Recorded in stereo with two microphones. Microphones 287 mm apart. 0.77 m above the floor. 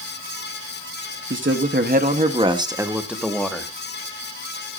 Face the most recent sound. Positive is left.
turn(degrees=5)  # may be behind; listen again after turning